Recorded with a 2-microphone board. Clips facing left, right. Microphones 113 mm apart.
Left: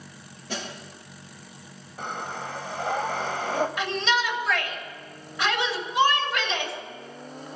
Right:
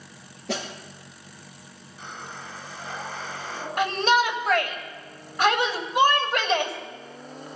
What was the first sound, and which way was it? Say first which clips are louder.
A snare drum: right 4 dB; 85° right.